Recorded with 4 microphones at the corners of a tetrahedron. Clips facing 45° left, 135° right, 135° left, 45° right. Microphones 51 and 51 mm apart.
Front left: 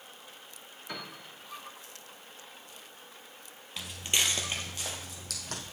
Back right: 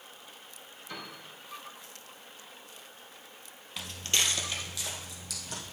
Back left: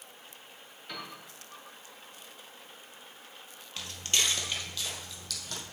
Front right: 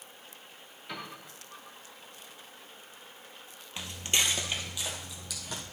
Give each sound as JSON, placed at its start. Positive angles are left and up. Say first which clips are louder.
{"t": 0.9, "sound": "a piano", "louder": "front left 1 dB, front right 1 dB", "azimuth_deg": 40, "distance_m": 2.0}
{"t": 3.8, "sound": "footsteps", "louder": "even, front right 1 dB", "azimuth_deg": -45, "distance_m": 1.2}